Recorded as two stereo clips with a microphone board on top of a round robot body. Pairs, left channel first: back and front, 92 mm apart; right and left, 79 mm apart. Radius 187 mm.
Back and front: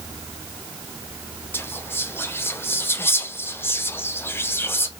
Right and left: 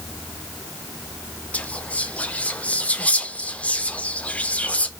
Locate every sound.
1.5 s whispering: 145° right, 0.8 m